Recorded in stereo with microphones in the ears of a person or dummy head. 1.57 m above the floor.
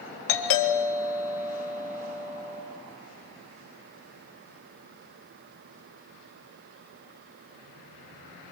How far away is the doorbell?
About 4 m.